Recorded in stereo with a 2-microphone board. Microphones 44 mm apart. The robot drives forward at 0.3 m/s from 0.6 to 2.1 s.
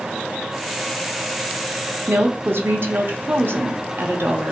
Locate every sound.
2.1 s a woman speaking: 60° right (ahead or behind), 0.9 m